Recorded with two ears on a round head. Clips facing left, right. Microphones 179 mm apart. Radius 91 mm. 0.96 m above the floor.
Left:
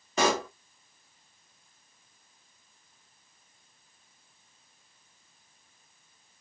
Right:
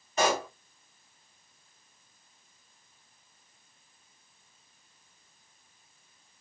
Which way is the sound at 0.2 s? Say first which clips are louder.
Left 1 dB; 65° left (ahead or behind).